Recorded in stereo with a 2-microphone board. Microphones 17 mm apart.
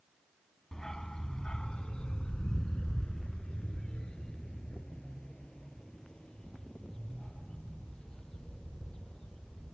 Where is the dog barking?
40° left (ahead or behind); by 9.7 s 55° left (ahead or behind).